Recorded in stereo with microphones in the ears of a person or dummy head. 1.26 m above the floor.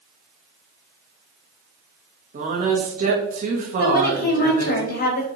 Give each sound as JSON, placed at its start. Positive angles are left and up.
{"t": 2.3, "sound": "a woman speaking", "side_deg": -40, "distance_m": 1.0}
{"t": 3.8, "sound": "a woman speaking", "side_deg": 45, "distance_m": 0.8}